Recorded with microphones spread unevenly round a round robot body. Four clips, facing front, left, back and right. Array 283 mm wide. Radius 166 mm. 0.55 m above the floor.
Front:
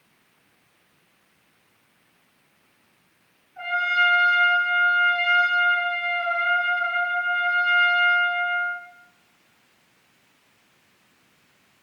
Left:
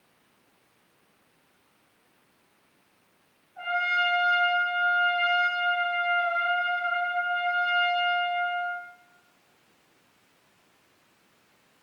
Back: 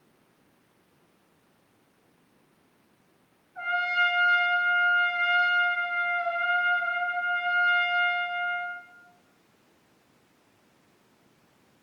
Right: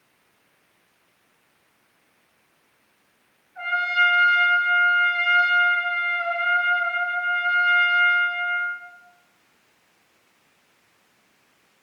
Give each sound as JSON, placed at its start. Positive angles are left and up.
{"t": 3.5, "sound": "a trumpet", "azimuth_deg": -150, "distance_m": 8.0}